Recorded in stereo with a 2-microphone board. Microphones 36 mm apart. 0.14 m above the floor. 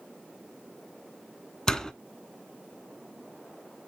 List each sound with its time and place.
1.7 s a door slam: 20° left (ahead or behind), 0.8 m